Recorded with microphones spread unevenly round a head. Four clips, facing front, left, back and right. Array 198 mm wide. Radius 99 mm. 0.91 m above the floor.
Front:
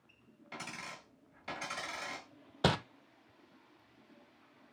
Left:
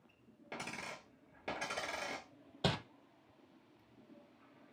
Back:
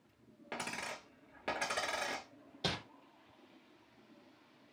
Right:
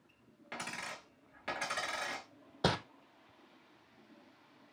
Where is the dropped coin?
155° left, 1.1 m.